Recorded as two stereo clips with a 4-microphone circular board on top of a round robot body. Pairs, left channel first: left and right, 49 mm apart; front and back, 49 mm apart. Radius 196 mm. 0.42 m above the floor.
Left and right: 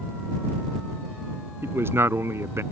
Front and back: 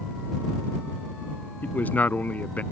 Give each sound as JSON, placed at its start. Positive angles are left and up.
{"t": 1.6, "sound": "a man speaking", "azimuth_deg": -55}